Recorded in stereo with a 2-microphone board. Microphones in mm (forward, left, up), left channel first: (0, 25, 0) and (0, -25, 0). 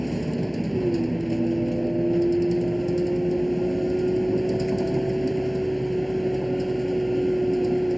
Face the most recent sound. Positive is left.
turn(degrees=0)  # may be behind; listen again after turning